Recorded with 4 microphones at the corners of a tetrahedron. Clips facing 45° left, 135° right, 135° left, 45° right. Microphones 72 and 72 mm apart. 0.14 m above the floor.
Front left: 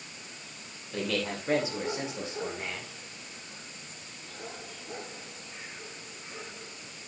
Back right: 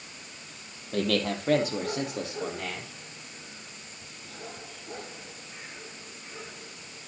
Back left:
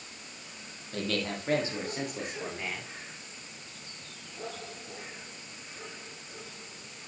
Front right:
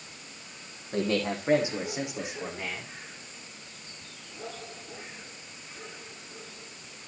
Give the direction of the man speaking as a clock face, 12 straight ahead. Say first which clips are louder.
Back right 5 dB, front right 5 dB; 3 o'clock.